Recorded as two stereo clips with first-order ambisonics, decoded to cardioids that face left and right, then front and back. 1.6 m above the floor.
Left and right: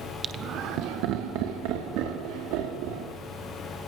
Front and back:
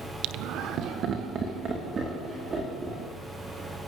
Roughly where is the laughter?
Behind right.